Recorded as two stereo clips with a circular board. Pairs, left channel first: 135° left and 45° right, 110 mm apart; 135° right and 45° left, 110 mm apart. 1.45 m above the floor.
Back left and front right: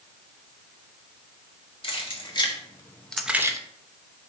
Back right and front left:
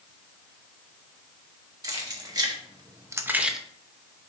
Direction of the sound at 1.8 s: 100° left.